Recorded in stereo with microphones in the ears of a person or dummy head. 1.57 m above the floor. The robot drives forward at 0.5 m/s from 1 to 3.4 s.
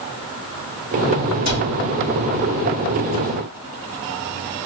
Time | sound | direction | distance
1.4 | a cupboard door | 35° right (ahead or behind) | 1.7 m